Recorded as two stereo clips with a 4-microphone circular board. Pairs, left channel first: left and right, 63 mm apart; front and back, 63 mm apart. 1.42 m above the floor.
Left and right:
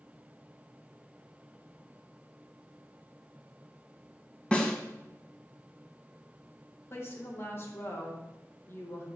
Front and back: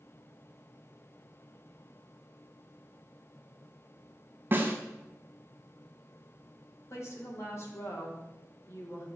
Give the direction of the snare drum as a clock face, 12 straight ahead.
7 o'clock.